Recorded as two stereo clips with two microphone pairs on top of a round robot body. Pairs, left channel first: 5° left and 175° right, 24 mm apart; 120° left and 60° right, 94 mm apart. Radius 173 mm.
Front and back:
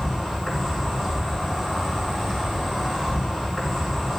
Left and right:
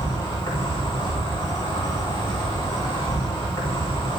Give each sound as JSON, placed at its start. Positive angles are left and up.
{"t": 0.0, "sound": "an insect", "azimuth_deg": 70, "distance_m": 4.5}